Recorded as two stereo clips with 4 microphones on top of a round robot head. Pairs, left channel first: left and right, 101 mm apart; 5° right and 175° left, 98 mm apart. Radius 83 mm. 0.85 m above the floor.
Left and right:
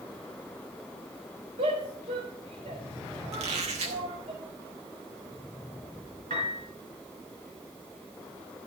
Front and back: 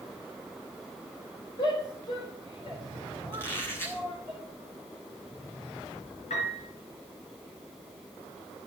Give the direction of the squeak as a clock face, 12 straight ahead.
3 o'clock.